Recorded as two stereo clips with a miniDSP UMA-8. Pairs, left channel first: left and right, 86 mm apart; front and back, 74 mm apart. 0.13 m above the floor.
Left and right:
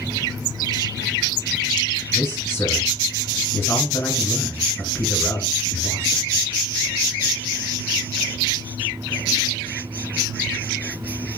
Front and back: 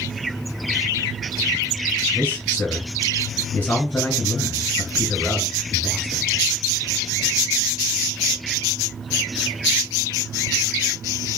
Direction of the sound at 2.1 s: 45° left.